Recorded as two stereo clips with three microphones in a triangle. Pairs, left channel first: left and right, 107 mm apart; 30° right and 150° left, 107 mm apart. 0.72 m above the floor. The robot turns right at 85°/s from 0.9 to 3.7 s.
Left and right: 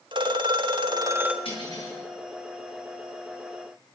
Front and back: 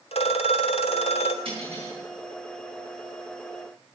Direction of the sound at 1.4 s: 115° left.